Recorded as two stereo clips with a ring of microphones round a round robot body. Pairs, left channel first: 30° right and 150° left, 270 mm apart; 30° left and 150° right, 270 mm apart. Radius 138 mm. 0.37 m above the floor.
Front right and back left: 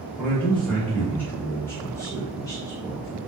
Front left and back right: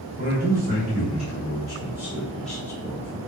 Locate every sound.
0.2 s a man speaking: 115° right, 2.0 m; by 3.2 s 20° left, 1.5 m